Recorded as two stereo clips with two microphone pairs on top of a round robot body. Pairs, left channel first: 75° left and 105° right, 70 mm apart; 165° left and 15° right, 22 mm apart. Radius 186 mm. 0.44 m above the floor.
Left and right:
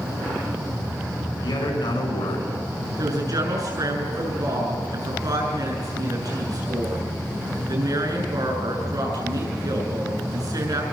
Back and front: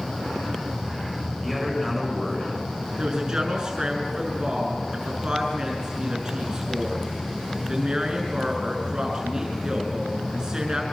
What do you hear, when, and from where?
1.4 s a man speaking: 80° left, 8.5 m
3.0 s a woman speaking: 70° right, 7.5 m